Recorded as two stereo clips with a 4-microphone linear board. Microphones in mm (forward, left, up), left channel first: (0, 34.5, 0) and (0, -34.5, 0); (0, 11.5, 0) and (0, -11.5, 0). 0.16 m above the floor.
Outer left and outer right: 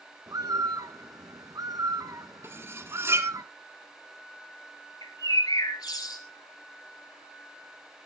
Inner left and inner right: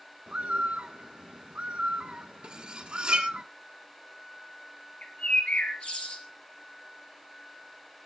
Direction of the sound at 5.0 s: 65° left (ahead or behind).